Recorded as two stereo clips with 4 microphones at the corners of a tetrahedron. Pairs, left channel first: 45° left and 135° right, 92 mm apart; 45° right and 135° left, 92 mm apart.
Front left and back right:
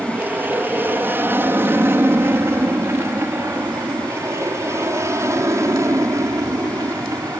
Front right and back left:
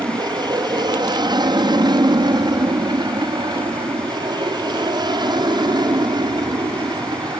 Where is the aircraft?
160° left; by 7.4 s 170° left.